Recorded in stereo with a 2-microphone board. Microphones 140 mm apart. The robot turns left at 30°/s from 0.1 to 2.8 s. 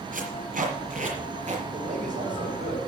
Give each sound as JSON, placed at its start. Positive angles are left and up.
{"t": 0.1, "sound": "tape being pulled", "side_deg": -75, "distance_m": 4.5}
{"t": 1.7, "sound": "a man speaking", "azimuth_deg": -70, "distance_m": 5.5}